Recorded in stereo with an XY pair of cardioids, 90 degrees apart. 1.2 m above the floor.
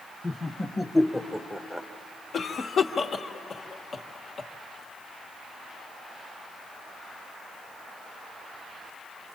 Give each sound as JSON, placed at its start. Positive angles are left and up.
{"t": 0.2, "sound": "laughter", "azimuth_deg": 20, "distance_m": 1.6}
{"t": 2.3, "sound": "a cough", "azimuth_deg": 55, "distance_m": 1.3}